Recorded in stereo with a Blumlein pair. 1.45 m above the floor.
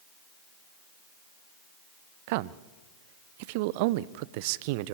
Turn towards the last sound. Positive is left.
turn(degrees=-50)